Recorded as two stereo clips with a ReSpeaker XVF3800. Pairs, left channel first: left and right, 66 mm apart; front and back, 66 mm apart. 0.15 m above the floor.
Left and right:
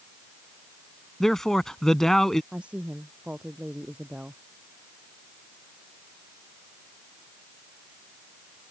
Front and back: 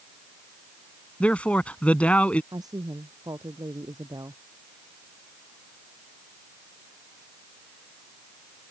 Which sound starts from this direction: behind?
A woman speaking, at 2.5 s.